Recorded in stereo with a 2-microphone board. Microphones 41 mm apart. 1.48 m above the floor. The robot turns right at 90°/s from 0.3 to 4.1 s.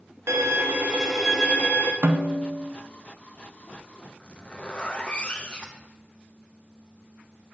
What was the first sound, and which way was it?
A violin, 80° right.